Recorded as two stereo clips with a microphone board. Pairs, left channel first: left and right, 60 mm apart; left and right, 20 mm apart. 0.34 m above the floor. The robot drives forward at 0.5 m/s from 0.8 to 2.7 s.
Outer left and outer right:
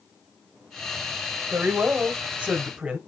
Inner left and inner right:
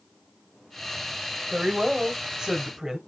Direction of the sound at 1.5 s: 25° right (ahead or behind).